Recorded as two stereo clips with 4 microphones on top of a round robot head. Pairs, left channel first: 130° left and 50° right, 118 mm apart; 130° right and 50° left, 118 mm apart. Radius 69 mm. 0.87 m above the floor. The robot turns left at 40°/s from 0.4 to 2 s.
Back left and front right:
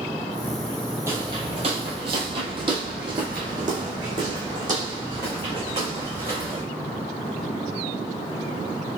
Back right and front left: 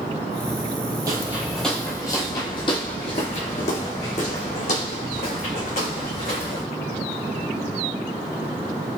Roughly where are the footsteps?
Ahead.